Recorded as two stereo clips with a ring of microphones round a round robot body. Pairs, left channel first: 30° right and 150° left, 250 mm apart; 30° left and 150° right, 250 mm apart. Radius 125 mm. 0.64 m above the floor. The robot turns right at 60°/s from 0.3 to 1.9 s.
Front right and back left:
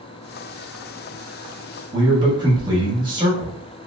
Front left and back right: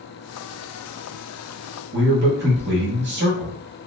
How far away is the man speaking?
About 1.2 m.